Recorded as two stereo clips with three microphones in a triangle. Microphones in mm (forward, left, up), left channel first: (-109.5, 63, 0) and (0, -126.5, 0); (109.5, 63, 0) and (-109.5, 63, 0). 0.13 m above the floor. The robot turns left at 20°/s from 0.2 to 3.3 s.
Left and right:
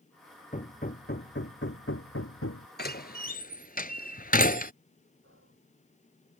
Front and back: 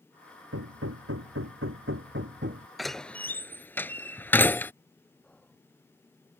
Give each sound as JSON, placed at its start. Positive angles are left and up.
{"t": 0.5, "sound": "hammering", "azimuth_deg": 180}
{"t": 2.8, "sound": "a door slam", "azimuth_deg": 90}
{"t": 5.2, "sound": "whispering", "azimuth_deg": -85}